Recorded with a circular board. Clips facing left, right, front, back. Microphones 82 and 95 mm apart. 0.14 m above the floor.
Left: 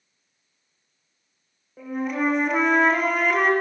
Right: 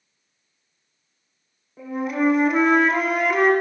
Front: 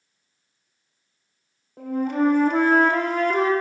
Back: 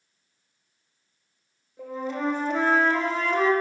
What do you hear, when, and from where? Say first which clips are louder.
1.8 s a flute: right 2 dB, front 8 dB; straight ahead, 1.1 m